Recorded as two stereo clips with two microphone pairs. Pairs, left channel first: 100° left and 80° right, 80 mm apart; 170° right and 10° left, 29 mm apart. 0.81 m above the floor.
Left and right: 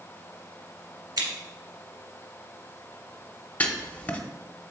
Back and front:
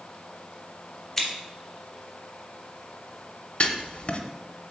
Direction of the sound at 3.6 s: 165° left.